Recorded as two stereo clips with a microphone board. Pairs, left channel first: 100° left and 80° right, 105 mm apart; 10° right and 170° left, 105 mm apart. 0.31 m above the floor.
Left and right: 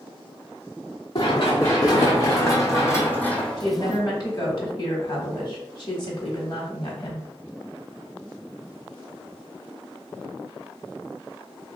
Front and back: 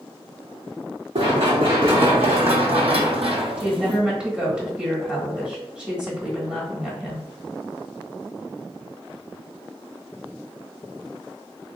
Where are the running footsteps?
145° left, 1.6 m; by 4.0 s 155° right, 0.5 m.